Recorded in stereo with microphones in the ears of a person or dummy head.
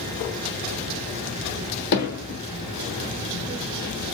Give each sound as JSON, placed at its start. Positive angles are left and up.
{"t": 1.9, "sound": "hammering", "side_deg": 65, "distance_m": 3.0}